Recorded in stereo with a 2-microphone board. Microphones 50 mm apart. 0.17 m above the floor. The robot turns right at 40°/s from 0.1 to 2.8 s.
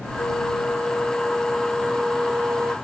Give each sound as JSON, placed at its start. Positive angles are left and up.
{"t": 0.2, "sound": "a flute", "azimuth_deg": 120}